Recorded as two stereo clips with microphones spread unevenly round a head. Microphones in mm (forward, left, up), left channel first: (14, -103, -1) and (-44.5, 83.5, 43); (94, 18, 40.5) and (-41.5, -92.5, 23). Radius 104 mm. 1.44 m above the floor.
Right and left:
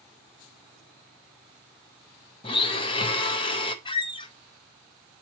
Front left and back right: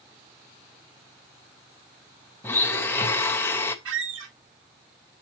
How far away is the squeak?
About 1.2 m.